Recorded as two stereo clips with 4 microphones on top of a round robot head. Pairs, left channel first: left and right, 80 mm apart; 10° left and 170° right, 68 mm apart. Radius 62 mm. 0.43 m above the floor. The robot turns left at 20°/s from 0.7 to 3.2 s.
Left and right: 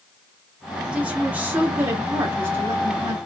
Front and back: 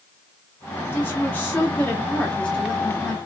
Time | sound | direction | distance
0.9 | a woman speaking | 25° right | 0.9 m